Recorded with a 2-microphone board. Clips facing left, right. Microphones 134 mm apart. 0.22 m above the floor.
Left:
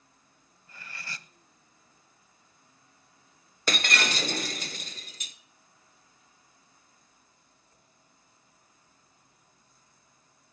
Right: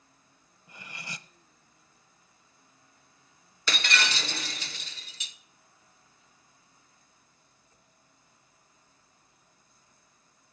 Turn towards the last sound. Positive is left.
turn(degrees=45)  # may be behind; listen again after turning